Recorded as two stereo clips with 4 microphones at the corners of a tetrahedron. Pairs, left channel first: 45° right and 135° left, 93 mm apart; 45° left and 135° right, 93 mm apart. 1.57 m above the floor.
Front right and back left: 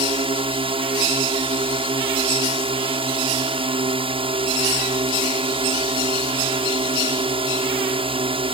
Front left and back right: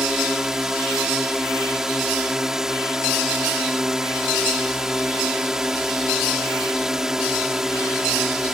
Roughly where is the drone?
Behind left.